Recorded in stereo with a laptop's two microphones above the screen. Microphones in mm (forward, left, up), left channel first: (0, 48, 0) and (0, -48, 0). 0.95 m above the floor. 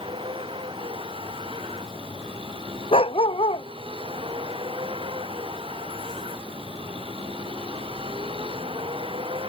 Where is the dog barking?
75° left (ahead or behind).